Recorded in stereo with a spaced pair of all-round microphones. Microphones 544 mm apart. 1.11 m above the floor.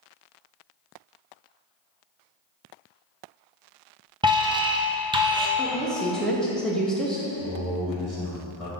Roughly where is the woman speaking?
Centre.